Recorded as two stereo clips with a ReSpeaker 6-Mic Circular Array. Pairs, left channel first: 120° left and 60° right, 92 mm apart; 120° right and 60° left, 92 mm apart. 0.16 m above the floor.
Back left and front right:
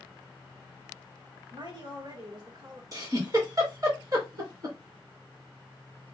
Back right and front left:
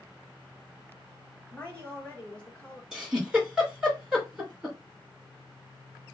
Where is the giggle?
25° right, 2.5 m.